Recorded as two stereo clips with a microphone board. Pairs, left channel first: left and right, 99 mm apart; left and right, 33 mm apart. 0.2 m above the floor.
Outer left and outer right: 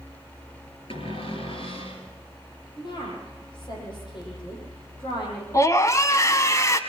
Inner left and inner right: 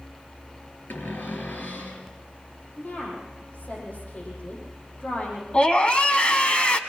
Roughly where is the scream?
Left.